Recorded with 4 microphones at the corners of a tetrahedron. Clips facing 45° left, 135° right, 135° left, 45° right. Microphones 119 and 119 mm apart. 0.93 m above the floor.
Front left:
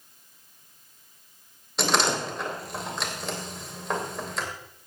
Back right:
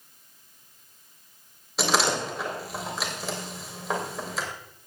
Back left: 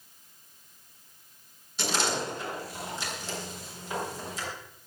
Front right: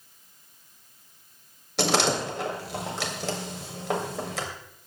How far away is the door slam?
About 3 m.